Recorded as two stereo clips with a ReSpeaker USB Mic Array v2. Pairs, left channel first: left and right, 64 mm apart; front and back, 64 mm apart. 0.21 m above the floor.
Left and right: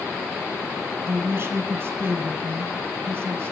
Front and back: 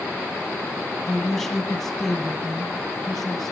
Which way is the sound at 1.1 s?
85° right.